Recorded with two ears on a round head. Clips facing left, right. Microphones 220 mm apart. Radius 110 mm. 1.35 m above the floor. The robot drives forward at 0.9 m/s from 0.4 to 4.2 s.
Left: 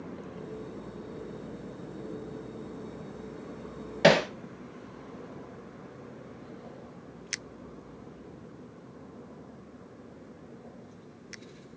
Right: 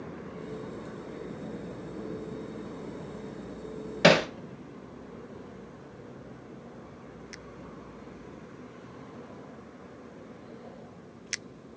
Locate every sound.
4.0 s hammering: 10° right (ahead or behind), 0.8 m; by 4.3 s 5° right (ahead or behind), 0.9 m